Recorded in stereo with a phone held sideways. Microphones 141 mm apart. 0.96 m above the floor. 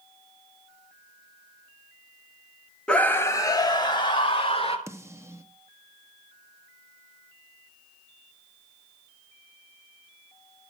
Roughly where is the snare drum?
Centre.